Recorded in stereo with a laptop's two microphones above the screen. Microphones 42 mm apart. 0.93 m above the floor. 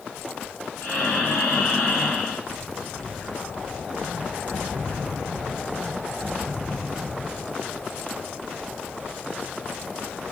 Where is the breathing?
80° left, 1.6 m.